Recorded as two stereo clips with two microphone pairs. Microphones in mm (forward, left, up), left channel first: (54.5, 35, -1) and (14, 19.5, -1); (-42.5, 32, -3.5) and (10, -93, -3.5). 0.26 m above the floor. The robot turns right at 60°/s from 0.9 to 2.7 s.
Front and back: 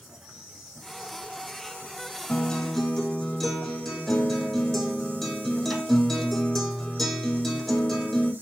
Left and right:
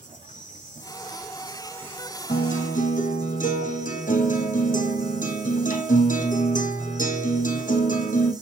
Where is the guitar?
80° left, 2 m; by 8.3 s 105° left, 2 m.